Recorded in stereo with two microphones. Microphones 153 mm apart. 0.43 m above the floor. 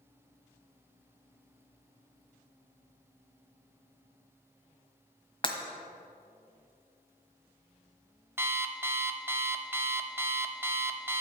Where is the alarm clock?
15° right (ahead or behind), 0.9 m.